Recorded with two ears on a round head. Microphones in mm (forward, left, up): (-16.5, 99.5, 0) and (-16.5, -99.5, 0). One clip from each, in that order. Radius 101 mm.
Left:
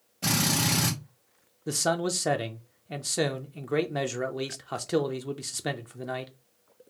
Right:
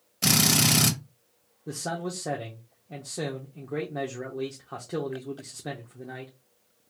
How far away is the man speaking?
About 0.5 m.